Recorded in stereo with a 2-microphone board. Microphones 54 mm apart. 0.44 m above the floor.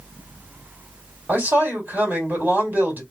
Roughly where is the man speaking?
Right.